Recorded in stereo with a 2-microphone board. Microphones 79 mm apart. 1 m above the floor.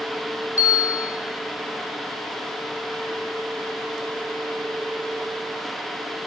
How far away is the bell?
About 1.2 m.